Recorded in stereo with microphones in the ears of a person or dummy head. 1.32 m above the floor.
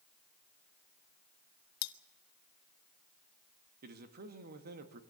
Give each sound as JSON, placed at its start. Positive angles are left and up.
{"t": 1.8, "sound": "cutlery clinking", "side_deg": 65, "distance_m": 0.9}
{"t": 3.8, "sound": "a man speaking", "side_deg": -55, "distance_m": 1.9}